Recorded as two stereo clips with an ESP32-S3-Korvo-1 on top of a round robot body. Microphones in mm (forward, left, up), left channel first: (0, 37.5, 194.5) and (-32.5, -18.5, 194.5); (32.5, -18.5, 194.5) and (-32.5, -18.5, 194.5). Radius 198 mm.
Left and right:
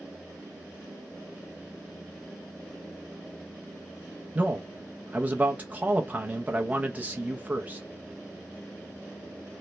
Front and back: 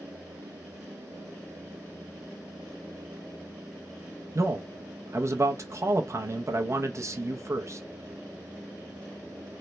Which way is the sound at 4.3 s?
175° right.